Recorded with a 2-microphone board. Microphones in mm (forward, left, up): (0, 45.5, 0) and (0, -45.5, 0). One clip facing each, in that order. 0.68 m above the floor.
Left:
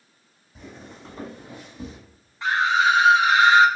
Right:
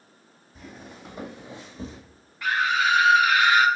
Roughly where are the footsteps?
Centre.